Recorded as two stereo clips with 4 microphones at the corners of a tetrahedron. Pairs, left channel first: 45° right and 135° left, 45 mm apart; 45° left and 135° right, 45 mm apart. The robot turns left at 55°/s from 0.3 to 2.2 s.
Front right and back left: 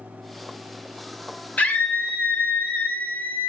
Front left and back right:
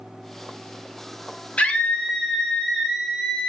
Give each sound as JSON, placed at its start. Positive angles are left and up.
{"t": 1.6, "sound": "a scream", "azimuth_deg": -5, "distance_m": 0.6}